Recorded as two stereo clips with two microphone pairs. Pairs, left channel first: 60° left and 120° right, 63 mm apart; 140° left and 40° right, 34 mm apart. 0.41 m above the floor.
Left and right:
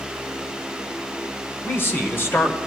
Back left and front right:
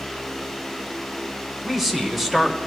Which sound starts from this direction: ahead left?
A man speaking, at 1.6 s.